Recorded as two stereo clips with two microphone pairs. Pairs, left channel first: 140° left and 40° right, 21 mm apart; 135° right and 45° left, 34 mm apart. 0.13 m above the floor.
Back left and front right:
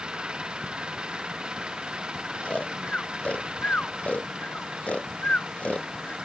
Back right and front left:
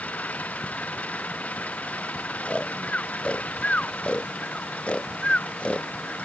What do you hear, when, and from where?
0.0 s an engine running: 90° right
2.4 s snoring: 165° left